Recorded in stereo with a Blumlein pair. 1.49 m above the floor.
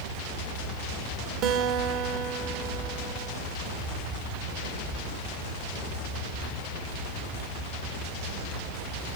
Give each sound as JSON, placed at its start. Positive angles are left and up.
{"t": 1.4, "sound": "a guitar", "azimuth_deg": -35, "distance_m": 2.0}